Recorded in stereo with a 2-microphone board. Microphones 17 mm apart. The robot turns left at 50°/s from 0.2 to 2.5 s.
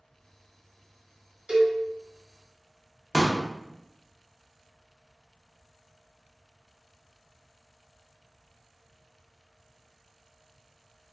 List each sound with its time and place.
1.5 s a cowbell: 50° right (ahead or behind), 1.0 m; by 1.8 s 40° right (ahead or behind), 1.0 m
3.1 s a pop: 30° left (ahead or behind), 0.5 m